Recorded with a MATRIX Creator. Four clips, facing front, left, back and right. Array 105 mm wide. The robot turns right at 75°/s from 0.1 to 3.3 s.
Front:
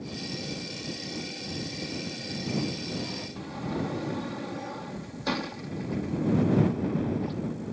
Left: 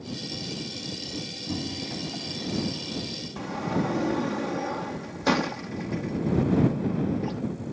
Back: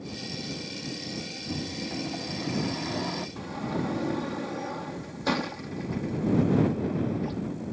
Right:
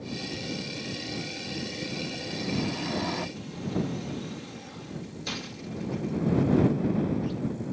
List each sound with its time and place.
1.5 s a microwave: 115° left; by 3.3 s 115° right
3.4 s a sliding door: 100° left